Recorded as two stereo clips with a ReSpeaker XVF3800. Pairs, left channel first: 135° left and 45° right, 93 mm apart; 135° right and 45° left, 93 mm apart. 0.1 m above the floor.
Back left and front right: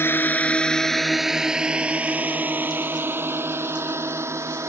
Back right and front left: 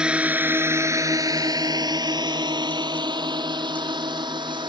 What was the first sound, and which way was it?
A drone, 110° left.